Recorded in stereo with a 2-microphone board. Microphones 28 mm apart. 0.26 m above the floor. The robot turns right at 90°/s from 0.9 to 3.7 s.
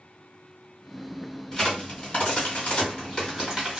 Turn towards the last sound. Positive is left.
turn(degrees=-20)  # may be behind; listen again after turning